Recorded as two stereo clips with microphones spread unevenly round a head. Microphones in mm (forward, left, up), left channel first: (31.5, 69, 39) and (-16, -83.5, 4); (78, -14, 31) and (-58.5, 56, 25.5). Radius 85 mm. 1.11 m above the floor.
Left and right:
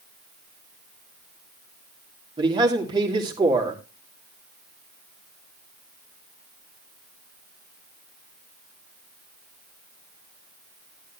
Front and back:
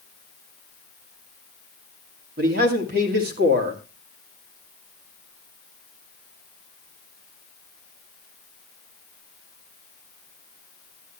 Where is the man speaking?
170° right, 2.5 m.